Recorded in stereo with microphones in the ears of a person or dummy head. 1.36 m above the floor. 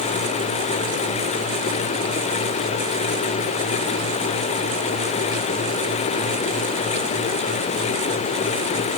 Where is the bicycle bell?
I don't hear a bicycle bell.